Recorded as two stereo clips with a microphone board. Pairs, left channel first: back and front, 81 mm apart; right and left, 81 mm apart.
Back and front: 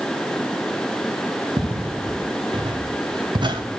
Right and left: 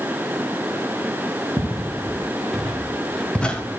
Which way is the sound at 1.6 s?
Straight ahead.